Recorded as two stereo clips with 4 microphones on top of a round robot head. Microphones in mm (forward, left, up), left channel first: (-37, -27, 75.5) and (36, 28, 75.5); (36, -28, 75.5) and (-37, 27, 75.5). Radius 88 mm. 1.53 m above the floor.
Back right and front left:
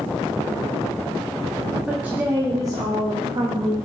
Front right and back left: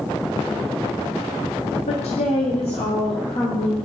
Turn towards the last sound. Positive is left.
turn(degrees=5)